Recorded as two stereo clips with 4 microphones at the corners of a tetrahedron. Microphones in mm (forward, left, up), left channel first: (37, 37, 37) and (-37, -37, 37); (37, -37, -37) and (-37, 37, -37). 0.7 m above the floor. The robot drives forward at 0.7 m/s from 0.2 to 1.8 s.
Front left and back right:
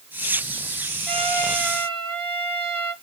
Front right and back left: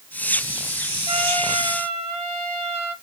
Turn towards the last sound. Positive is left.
turn(degrees=130)